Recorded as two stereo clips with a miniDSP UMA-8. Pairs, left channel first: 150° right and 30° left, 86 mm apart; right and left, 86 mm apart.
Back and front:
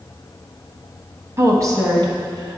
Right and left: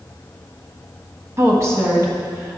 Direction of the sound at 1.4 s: 60° left.